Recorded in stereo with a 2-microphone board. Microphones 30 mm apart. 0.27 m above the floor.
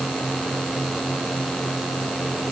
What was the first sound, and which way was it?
Only background noise.